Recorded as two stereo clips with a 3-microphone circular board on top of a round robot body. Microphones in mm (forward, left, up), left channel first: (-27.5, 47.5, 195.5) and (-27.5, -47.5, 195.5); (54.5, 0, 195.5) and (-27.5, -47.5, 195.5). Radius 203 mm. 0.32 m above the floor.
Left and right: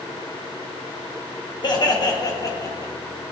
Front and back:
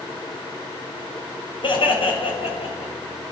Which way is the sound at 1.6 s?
55° left.